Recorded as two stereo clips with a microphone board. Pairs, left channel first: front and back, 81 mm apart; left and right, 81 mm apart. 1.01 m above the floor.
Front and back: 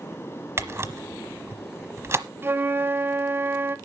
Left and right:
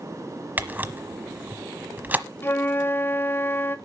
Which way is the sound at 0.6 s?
145° right.